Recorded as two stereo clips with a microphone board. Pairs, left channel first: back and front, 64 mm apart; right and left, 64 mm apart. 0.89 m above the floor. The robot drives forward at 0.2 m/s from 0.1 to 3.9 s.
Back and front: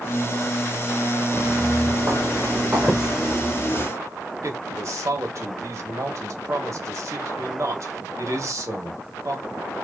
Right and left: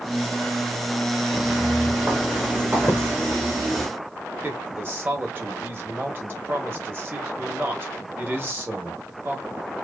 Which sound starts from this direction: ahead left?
A man speaking, at 4.4 s.